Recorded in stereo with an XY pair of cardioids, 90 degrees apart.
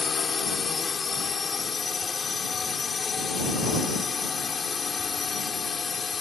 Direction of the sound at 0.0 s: 40° left.